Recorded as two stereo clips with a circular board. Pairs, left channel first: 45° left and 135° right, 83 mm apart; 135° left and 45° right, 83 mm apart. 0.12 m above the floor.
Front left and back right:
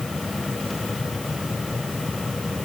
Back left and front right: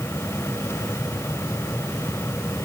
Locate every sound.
Only background noise.